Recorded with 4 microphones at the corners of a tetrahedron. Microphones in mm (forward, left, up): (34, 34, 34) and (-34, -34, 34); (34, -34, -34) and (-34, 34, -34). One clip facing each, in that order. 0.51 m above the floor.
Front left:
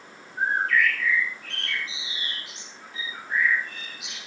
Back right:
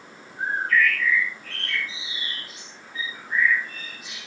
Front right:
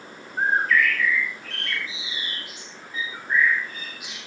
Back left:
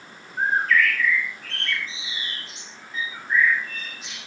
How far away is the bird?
About 8 m.